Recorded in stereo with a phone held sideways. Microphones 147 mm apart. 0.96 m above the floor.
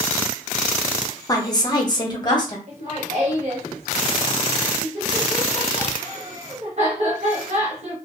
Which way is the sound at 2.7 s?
50° right (ahead or behind).